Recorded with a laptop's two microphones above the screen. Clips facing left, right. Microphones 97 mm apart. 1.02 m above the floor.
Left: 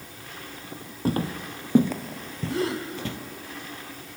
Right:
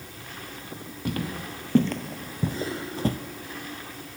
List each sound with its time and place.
1.1 s footsteps: 35° left (ahead or behind), 2 m; by 3.2 s 40° right (ahead or behind), 1.7 m
2.5 s a gasp: 75° left (ahead or behind), 3.5 m